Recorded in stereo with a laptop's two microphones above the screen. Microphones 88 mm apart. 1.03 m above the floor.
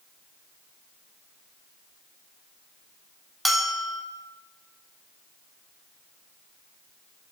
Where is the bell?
Centre (ahead or behind), 0.8 m.